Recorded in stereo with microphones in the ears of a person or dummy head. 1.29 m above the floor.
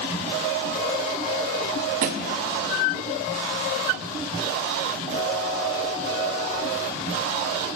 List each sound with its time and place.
2.0 s a thud: 45° right (ahead or behind), 0.8 m